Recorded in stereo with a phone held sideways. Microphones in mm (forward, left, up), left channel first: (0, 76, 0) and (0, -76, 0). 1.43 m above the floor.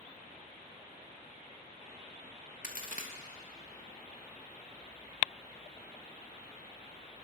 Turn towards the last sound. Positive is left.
turn(degrees=60)  # may be behind; listen again after turning